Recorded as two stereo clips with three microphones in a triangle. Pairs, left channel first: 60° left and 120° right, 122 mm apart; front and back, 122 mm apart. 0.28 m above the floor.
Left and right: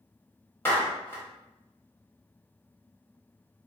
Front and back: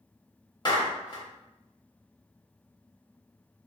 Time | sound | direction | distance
0.7 | a clap | straight ahead | 0.9 m